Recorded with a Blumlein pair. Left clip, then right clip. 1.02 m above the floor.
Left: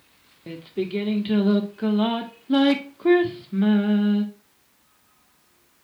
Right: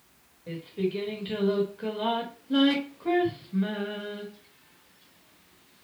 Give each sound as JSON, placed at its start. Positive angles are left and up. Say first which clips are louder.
{"t": 0.5, "sound": "singing", "louder": "left 2 dB", "azimuth_deg": 40, "distance_m": 2.0}